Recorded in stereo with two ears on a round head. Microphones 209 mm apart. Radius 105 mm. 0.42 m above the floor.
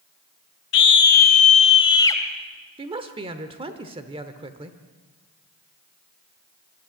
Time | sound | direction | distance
0.7 | a scream | 55° left (ahead or behind) | 2 m
2.8 | a woman speaking | 25° right (ahead or behind) | 1.0 m